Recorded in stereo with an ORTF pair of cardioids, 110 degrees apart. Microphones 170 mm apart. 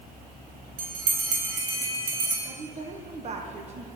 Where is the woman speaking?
40° right, 1.4 m.